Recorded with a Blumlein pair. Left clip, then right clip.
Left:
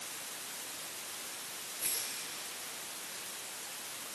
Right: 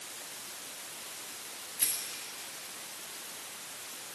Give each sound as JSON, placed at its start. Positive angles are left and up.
{"t": 1.8, "sound": "a rattle", "azimuth_deg": -55, "distance_m": 8.0}